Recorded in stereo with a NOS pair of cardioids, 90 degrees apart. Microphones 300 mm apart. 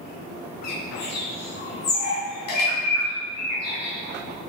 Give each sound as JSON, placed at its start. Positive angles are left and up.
{"t": 0.6, "sound": "a bird", "azimuth_deg": 60, "distance_m": 2.0}